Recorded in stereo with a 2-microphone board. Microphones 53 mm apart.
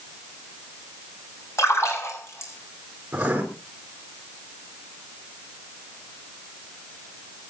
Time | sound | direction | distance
1.6 | a splash | 60° left (ahead or behind) | 7 m
3.1 | writing | 25° right (ahead or behind) | 4 m